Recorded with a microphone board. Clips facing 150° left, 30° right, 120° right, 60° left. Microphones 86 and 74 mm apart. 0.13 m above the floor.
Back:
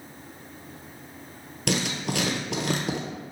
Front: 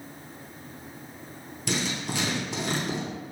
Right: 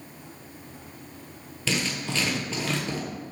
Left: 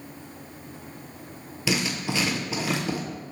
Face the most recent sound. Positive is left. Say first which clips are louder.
# back 3 dB, left 2 dB
turn(degrees=135)